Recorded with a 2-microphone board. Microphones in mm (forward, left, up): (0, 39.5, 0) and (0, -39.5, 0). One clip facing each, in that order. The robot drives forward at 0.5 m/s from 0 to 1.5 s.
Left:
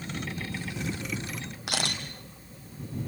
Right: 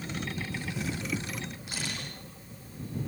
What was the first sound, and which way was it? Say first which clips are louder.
A camera shutter: left 8 dB; 75° left (ahead or behind).